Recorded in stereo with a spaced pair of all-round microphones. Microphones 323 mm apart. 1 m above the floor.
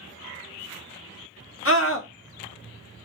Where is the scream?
40° left (ahead or behind), 1.0 m.